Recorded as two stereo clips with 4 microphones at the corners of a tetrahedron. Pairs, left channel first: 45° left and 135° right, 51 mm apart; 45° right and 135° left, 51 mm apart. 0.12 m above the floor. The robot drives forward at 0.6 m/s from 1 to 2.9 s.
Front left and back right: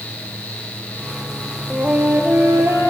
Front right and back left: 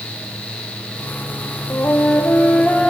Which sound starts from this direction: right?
A flute, at 1.7 s.